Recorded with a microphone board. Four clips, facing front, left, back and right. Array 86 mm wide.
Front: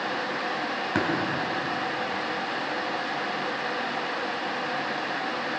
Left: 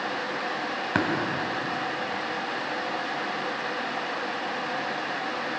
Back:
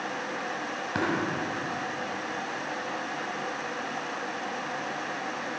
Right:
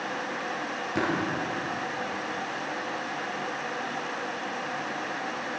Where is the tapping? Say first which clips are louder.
Left 2 dB, front 2 dB; 75° left, 3 m.